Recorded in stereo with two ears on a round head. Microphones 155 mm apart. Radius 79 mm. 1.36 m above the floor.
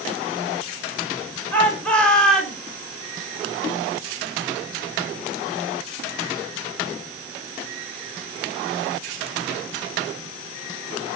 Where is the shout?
10° left (ahead or behind), 7 m; by 2.6 s centre (ahead or behind), 6 m.